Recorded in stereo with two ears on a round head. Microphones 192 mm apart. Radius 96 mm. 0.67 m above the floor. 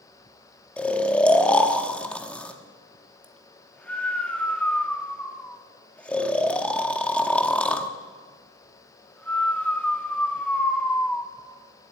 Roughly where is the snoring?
Centre.